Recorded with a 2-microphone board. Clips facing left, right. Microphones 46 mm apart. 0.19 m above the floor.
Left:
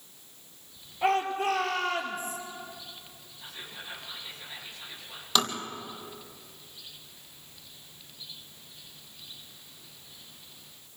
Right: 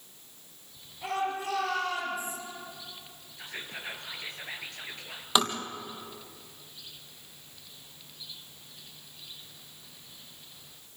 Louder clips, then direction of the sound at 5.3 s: Right 1 dB; 15° right (ahead or behind).